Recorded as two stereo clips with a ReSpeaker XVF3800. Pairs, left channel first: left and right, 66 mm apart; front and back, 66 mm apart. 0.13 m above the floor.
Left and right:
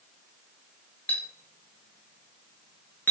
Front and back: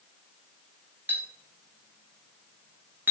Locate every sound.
1.1 s a clink: 140° left, 1.0 m